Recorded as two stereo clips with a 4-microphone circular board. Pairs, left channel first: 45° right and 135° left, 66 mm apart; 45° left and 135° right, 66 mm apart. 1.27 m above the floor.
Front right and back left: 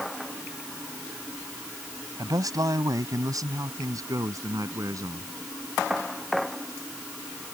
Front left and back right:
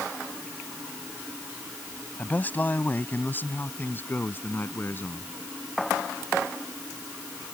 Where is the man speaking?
110° left; by 5.3 s 100° left.